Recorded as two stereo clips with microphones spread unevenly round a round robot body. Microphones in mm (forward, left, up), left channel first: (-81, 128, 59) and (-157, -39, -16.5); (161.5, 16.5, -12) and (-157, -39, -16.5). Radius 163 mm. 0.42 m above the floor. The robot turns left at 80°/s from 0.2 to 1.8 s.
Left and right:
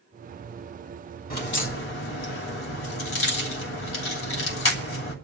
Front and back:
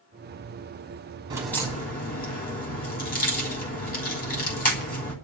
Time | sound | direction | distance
1.3 | a crack | 115° left | 2.5 m